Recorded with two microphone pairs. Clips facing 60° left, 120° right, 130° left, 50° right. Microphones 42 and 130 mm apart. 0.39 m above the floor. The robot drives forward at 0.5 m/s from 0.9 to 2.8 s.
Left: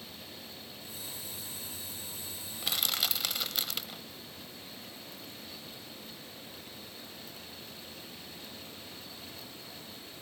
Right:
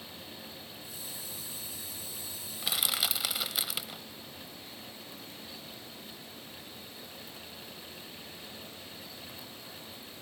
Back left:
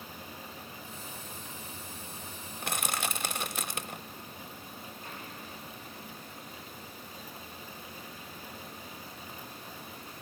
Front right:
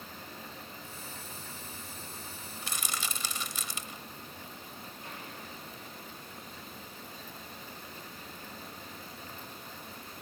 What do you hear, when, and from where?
2.6 s crushing: 150° left, 0.6 m; by 4.0 s 155° left, 0.7 m